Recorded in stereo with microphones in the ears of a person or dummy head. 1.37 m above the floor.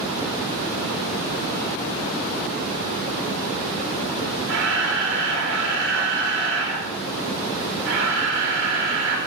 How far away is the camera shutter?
About 1.2 m.